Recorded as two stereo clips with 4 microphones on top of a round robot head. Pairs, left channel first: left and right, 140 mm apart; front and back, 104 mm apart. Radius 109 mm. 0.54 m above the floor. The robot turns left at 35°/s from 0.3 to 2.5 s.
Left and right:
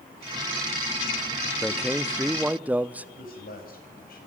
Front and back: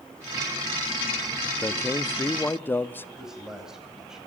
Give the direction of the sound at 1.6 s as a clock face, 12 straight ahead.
12 o'clock.